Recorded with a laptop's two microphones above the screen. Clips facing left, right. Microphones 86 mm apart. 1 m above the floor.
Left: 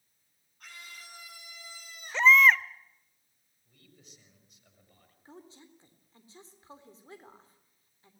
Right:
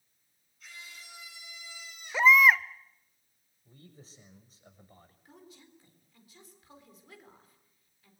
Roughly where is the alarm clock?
I don't hear an alarm clock.